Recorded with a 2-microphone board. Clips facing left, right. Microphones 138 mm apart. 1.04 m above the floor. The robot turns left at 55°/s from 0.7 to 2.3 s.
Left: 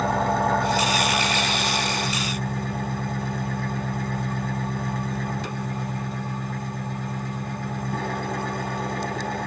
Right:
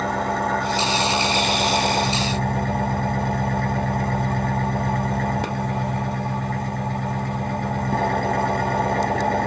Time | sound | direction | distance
0.0 | an engine running | straight ahead | 1.0 m